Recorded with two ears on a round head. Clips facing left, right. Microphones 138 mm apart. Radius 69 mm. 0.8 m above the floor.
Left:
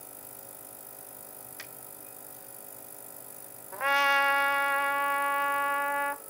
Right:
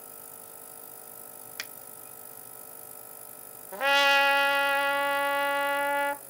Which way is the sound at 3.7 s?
35° right (ahead or behind).